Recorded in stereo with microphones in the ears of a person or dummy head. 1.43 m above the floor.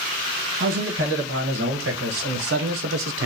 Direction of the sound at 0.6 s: 60° right (ahead or behind).